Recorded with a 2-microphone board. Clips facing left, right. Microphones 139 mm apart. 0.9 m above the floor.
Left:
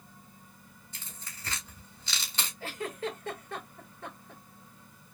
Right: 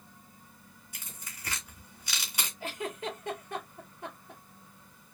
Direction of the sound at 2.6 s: 15° right (ahead or behind).